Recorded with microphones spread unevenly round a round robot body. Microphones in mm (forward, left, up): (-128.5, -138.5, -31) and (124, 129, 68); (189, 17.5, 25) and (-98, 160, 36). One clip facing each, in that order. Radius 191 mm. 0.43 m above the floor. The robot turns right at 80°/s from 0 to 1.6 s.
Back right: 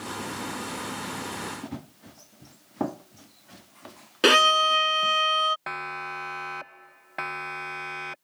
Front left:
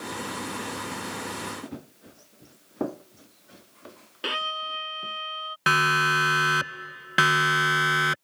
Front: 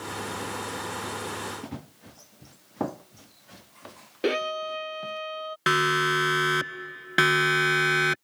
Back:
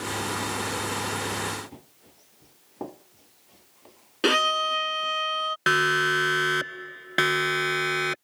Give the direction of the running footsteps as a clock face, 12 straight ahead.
2 o'clock.